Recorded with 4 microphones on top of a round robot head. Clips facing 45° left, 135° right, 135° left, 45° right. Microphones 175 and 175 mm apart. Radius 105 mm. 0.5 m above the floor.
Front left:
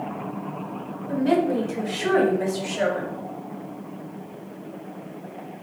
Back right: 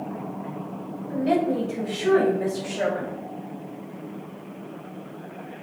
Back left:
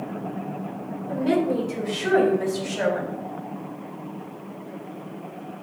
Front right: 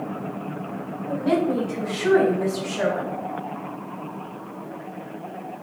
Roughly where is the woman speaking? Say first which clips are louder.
Front left 2 dB, even; left.